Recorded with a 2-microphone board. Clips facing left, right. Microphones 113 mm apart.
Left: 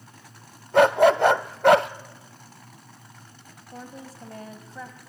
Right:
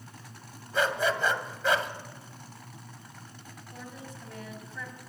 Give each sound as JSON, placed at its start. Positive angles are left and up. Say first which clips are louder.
{"t": 0.7, "sound": "a dog barking", "louder": "left 11 dB", "side_deg": 65, "distance_m": 0.5}
{"t": 3.7, "sound": "a woman speaking", "louder": "left 4 dB", "side_deg": 35, "distance_m": 2.0}